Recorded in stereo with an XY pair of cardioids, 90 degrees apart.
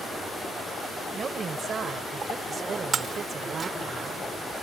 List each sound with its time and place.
1.1 s a woman speaking: 50° right
2.9 s breaking glass: 50° right